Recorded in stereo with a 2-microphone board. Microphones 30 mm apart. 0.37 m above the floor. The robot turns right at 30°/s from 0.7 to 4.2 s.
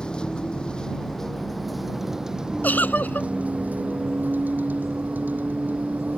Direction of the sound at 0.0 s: 150° left.